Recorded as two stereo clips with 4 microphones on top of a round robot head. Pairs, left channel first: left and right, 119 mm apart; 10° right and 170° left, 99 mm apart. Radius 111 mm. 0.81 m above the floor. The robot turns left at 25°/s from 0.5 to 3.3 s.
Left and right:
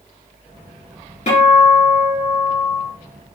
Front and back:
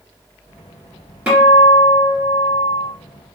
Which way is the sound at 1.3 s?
90° left.